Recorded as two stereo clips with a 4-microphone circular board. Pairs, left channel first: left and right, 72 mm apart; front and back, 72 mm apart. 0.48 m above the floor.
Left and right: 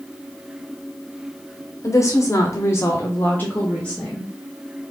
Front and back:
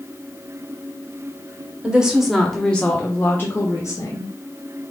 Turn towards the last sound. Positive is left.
turn(degrees=15)